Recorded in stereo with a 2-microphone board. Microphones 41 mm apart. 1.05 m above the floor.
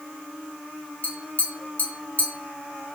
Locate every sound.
1.0 s tapping: 45° left (ahead or behind), 0.9 m